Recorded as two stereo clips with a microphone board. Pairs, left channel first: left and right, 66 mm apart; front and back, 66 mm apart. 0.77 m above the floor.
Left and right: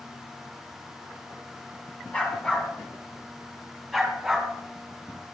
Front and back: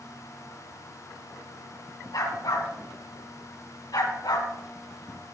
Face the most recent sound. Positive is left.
turn(degrees=-5)